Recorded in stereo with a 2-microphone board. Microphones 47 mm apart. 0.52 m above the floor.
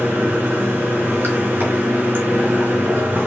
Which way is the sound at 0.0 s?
50° right (ahead or behind).